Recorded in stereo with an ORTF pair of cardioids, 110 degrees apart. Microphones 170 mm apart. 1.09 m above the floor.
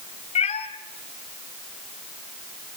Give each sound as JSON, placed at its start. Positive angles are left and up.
{"t": 0.3, "sound": "a cat meowing", "azimuth_deg": 40, "distance_m": 2.5}